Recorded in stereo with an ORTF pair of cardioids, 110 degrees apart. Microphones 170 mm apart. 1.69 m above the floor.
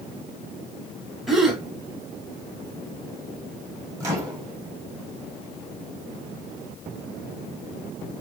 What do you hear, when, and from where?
1.3 s a gasp: straight ahead, 0.6 m
4.0 s a microwave: 15° right, 0.9 m